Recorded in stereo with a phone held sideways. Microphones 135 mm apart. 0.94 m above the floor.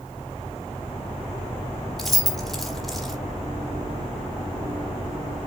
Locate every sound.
2.0 s keys jangling: centre (ahead or behind), 1.5 m